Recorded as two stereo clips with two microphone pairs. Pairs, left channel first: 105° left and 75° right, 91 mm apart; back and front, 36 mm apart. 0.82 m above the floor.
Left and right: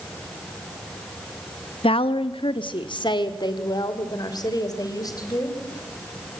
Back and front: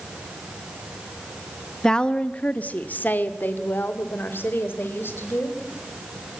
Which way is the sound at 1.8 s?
105° left.